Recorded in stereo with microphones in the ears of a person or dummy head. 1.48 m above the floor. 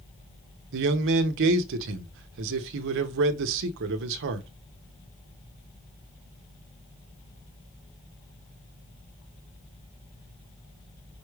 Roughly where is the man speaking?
Right.